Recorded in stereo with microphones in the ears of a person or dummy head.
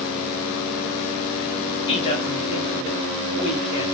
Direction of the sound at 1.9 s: 30° left (ahead or behind).